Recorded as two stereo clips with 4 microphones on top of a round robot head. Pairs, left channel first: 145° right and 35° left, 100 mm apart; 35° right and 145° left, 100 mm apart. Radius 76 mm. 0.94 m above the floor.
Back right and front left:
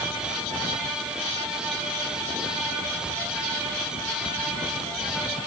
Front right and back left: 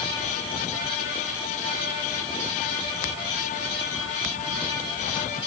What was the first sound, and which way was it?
Only background noise.